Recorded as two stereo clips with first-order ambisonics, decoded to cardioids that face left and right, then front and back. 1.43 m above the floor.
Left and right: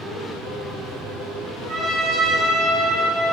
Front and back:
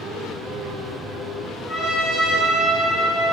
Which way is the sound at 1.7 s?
55° right.